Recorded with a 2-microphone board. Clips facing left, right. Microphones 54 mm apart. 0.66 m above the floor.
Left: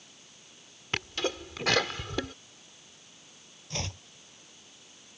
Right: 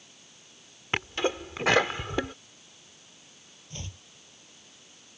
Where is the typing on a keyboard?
No typing on a keyboard in this recording.